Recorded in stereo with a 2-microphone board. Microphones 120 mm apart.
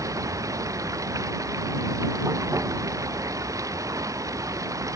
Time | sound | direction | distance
0.0 | running water | 25° right (ahead or behind) | ?